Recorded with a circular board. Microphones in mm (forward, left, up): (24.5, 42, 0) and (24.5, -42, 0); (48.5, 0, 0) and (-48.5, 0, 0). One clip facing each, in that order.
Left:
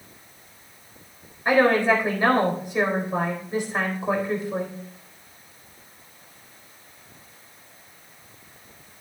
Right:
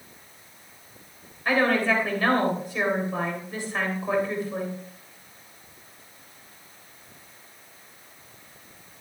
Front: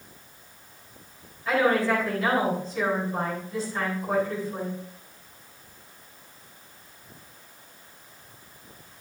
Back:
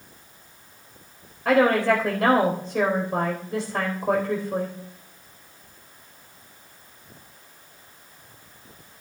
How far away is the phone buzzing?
No phone buzzing in this recording.